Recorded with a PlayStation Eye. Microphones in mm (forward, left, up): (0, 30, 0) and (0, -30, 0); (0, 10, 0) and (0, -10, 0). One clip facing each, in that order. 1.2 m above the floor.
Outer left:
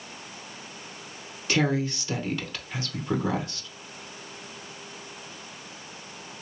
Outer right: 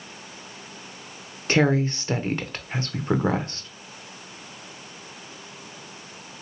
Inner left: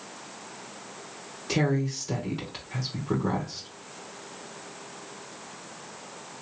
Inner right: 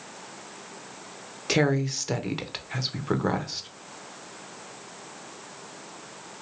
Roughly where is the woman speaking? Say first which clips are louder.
Outer right 4 dB, inner right 3 dB; right.